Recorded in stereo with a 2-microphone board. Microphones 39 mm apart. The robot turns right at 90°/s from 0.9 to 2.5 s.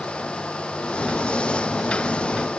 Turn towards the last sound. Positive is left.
No sound to turn to.